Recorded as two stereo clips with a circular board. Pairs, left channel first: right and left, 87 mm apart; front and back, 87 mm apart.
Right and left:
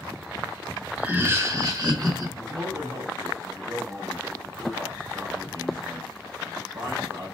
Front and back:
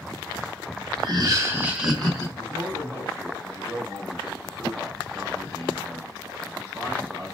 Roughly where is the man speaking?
Behind left.